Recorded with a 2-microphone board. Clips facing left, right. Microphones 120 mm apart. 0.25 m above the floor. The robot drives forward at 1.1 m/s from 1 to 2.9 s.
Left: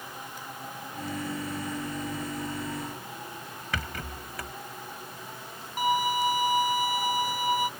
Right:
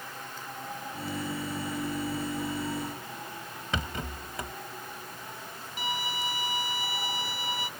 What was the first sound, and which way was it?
A rattle, 25° right (ahead or behind).